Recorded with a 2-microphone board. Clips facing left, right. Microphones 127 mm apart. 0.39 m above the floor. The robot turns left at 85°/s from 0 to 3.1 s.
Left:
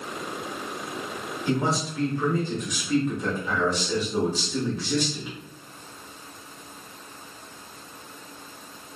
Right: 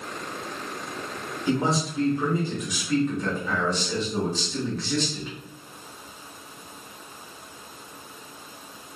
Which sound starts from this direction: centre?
A man speaking, at 1.5 s.